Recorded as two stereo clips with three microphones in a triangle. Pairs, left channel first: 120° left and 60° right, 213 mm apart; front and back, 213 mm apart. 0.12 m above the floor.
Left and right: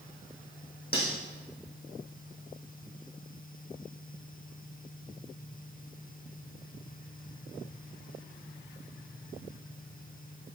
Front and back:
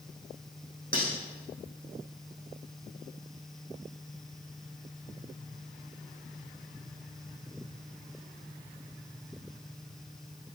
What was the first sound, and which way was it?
Cutlery clinking, 160° left.